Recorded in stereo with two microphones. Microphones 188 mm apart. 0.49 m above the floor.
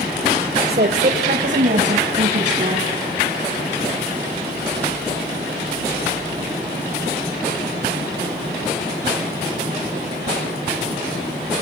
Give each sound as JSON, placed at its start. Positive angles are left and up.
{"t": 0.7, "sound": "a woman speaking", "side_deg": -60, "distance_m": 1.4}